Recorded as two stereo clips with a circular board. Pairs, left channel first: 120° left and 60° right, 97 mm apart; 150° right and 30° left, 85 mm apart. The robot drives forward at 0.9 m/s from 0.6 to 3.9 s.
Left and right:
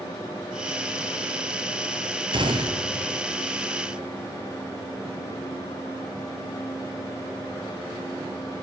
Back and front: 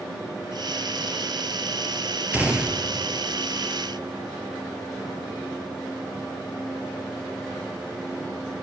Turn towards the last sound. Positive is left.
turn(degrees=-95)